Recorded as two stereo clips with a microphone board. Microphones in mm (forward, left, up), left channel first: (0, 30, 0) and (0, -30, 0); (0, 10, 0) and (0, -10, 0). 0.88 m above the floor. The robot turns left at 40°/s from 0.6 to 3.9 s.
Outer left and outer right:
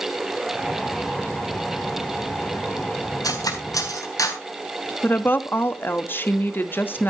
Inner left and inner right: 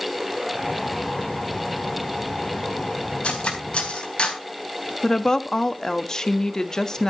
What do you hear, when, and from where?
3.2 s cutlery clinking: 85° left, 3.5 m; by 4.4 s 65° left (ahead or behind), 3.5 m
5.0 s a woman speaking: 35° left (ahead or behind), 1.2 m